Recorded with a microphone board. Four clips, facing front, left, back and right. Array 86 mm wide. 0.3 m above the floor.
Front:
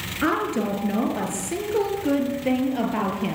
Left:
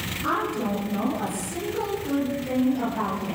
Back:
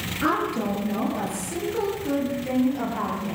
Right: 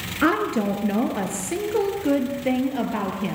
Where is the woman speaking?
75° right, 6 m; by 3.4 s 45° right, 7 m.